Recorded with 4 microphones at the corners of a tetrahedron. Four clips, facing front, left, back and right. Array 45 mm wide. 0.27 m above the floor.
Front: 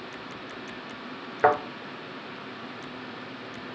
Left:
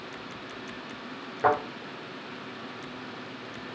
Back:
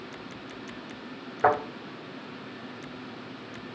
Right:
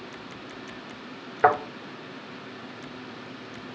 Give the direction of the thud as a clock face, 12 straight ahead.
2 o'clock.